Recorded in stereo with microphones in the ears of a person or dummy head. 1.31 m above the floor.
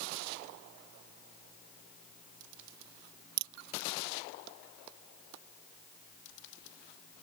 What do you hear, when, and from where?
3.4 s a crack: 65° right (ahead or behind)